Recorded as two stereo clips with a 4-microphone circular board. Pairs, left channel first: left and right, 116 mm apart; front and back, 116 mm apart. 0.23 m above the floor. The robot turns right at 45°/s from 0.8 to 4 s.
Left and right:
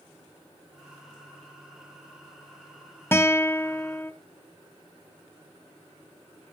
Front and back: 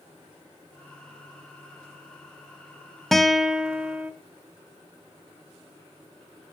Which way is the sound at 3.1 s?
85° left.